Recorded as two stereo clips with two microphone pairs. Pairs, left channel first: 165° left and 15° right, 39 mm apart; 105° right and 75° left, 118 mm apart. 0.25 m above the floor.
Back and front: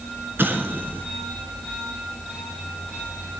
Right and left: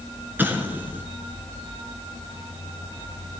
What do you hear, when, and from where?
0.4 s an explosion: 5° left, 1.1 m